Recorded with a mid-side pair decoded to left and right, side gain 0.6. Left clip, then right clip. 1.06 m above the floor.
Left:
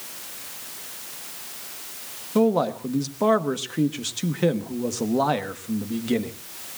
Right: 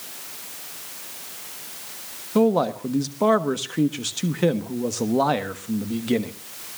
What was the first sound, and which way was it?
A man speaking, 10° right.